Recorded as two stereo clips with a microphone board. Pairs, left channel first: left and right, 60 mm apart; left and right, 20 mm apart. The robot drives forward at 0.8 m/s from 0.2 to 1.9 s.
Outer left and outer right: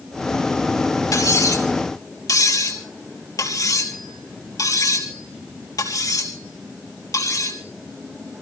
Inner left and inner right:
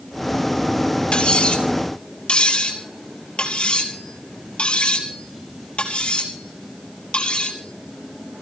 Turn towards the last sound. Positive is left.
turn(degrees=85)